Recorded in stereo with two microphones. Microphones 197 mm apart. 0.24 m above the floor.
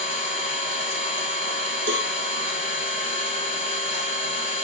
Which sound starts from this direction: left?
An engine running, at 0.0 s.